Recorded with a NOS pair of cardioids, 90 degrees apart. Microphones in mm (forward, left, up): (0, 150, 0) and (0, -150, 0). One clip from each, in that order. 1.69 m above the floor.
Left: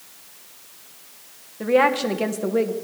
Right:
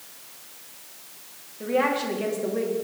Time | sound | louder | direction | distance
1.6 | a woman speaking | left 6 dB | 55° left | 1.9 m